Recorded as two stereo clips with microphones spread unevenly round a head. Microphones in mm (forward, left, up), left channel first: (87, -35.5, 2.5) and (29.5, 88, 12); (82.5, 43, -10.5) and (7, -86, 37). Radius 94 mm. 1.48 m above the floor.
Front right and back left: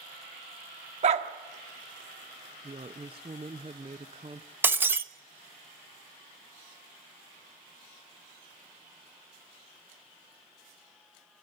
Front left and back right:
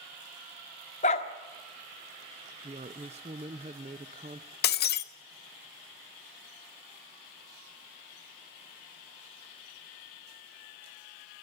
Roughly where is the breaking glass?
Ahead left.